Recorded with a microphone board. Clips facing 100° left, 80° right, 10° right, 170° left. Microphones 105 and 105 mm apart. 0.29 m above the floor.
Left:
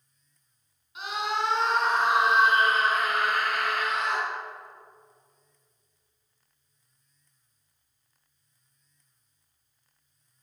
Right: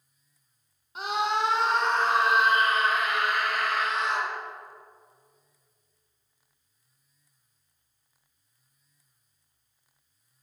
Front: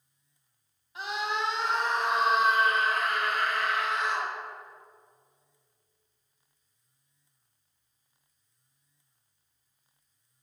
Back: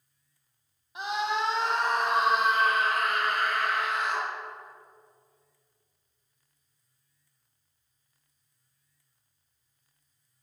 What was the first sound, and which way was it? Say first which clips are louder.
A scream: right 3 dB, back 3 dB; 120° right.